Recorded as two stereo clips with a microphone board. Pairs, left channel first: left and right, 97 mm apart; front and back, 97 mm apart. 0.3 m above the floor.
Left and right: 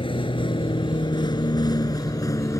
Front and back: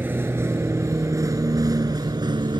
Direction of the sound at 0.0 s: 110° left.